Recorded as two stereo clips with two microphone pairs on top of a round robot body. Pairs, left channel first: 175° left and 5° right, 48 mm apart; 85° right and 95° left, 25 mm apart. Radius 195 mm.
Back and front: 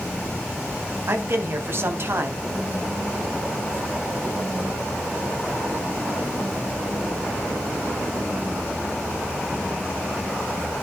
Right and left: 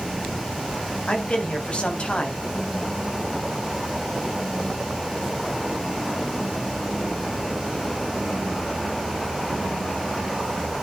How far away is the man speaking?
About 3.5 m.